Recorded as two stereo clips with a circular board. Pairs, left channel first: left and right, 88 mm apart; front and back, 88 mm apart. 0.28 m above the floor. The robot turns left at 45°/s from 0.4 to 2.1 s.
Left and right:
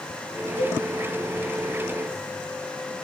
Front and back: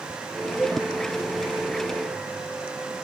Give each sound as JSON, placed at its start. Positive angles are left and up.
{"t": 0.6, "sound": "a cowbell", "azimuth_deg": -100, "distance_m": 0.5}